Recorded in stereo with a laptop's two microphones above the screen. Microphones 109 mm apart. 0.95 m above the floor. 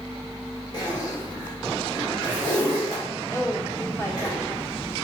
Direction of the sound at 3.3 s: 25° left (ahead or behind).